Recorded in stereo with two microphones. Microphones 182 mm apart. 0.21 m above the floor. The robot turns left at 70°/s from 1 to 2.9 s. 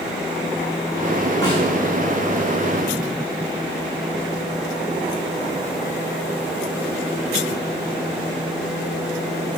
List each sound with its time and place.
1.4 s a snare drum: 15° left (ahead or behind), 5.5 m; by 1.6 s 30° left (ahead or behind), 5.5 m